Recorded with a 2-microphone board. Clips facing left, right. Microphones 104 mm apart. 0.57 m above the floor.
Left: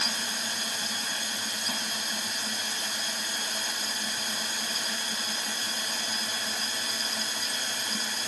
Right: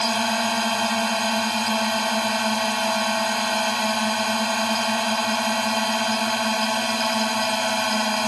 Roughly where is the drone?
Right.